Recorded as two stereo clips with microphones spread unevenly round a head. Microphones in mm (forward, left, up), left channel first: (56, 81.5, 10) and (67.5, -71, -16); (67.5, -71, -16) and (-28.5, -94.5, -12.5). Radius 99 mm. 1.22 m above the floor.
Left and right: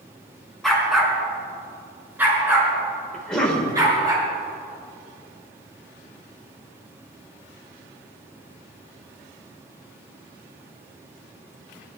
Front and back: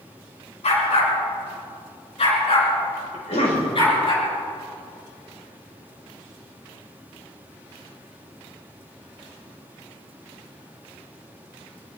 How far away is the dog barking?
About 4.5 m.